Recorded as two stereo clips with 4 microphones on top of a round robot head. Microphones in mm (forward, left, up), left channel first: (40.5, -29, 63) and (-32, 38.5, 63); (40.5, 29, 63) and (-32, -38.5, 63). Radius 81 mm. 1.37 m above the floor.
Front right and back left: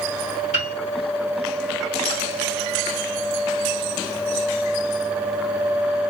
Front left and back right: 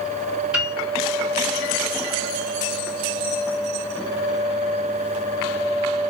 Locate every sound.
0.5 s a piano: 55° right, 2.5 m